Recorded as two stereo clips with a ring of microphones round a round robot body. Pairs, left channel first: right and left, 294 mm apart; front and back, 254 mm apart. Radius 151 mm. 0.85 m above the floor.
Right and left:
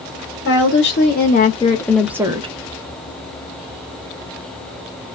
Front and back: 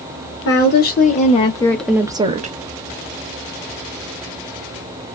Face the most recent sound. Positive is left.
turn(degrees=145)